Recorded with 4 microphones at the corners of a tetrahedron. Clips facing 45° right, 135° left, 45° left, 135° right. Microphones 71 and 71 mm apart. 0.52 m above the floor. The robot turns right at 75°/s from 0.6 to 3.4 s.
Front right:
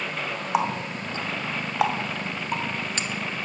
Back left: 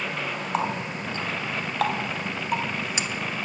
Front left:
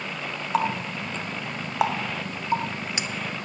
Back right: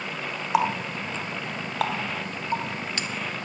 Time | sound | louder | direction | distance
0.5 | a running tap | front right 3 dB, back right 1 dB | 95° right | 0.6 m